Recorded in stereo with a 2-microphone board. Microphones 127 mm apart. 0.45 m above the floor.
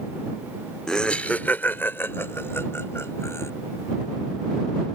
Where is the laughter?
5° left (ahead or behind); by 3.5 s 20° left (ahead or behind).